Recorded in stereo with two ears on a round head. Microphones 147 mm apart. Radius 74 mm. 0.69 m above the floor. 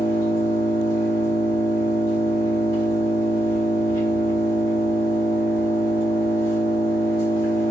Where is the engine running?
60° left (ahead or behind), 1.9 m.